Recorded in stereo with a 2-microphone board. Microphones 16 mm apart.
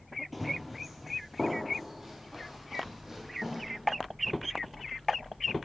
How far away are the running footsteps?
About 1.7 m.